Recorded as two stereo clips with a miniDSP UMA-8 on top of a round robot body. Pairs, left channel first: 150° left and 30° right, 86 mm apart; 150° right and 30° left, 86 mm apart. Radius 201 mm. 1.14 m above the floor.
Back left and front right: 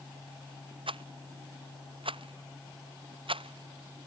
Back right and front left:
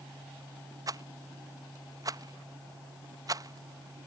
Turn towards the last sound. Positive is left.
turn(degrees=-20)